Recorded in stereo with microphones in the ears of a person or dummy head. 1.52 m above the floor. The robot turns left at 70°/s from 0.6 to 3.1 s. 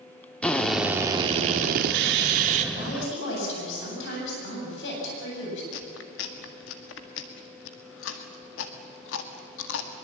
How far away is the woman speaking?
About 8.5 m.